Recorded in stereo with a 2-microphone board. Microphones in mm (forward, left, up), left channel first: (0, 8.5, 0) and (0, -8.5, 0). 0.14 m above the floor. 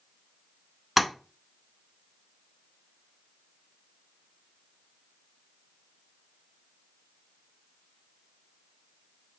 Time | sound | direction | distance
1.0 | tapping | 10° right (ahead or behind) | 0.7 m